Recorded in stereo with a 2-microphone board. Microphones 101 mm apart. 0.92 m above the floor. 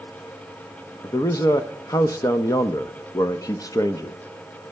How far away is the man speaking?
About 0.6 m.